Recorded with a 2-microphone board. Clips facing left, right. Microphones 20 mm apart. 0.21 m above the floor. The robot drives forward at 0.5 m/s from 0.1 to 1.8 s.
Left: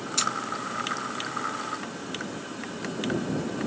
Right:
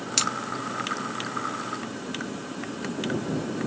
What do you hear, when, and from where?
0.2 s scissors: 60° right (ahead or behind), 1.4 m